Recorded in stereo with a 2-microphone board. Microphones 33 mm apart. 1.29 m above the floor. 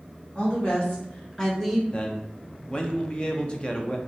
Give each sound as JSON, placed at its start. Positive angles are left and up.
{"t": 0.3, "sound": "a woman speaking", "side_deg": 45, "distance_m": 1.4}
{"t": 1.9, "sound": "a man speaking", "side_deg": 30, "distance_m": 0.5}